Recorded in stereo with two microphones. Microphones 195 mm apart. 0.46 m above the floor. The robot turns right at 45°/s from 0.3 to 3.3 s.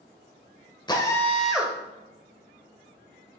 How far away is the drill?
About 1.3 m.